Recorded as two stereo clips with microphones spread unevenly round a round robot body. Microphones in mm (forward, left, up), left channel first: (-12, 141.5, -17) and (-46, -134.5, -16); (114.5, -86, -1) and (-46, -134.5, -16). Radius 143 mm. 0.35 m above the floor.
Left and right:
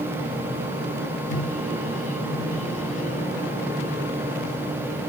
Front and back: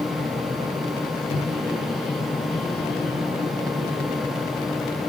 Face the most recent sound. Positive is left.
turn(degrees=50)